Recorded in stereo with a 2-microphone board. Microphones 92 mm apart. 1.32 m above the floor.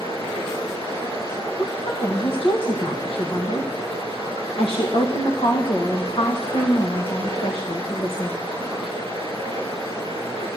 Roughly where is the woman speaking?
Left.